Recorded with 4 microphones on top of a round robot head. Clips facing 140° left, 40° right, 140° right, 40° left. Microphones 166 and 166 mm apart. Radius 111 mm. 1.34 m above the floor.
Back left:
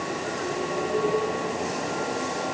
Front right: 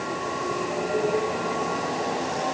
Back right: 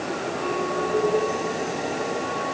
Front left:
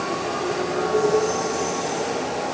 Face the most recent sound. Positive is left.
No sound to turn to.